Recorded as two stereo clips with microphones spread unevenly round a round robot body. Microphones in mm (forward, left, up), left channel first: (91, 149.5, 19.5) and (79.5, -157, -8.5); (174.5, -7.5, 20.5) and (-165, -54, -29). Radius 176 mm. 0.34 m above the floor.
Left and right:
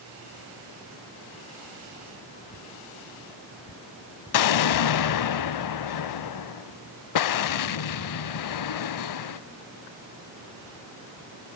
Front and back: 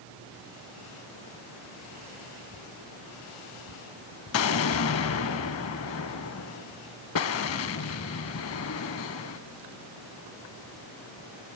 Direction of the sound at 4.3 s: 60° left.